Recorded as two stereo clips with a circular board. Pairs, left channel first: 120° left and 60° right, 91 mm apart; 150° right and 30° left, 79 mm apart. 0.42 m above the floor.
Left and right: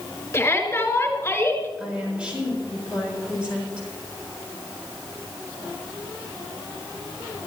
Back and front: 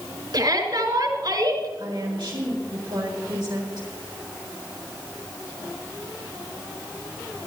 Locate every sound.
0.3 s a shout: 55° left, 5.5 m
1.8 s a woman speaking: 20° left, 7 m